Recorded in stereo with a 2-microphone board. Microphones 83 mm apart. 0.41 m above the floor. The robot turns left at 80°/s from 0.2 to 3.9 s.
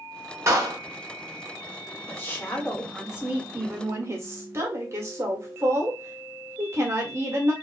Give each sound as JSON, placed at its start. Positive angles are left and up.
{"t": 0.5, "sound": "a clap", "side_deg": -35, "distance_m": 0.9}
{"t": 2.1, "sound": "a woman speaking", "azimuth_deg": 65, "distance_m": 1.0}